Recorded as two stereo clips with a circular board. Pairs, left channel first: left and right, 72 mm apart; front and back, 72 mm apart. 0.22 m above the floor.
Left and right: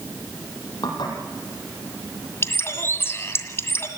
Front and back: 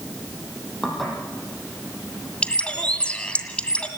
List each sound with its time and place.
0.8 s dishes clattering: 85° left, 5.5 m
2.4 s a bird: 65° left, 1.9 m